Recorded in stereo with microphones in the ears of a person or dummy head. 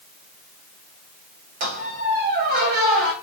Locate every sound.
1.6 s a squeak: 40° right (ahead or behind), 0.5 m